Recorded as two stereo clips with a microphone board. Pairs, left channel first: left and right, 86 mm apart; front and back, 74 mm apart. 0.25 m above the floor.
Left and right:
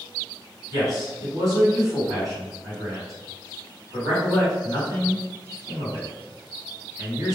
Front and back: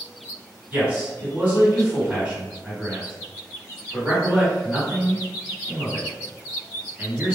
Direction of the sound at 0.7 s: 115° right.